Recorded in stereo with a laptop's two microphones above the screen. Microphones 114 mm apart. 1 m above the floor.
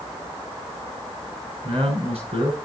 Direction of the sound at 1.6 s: 65° right (ahead or behind).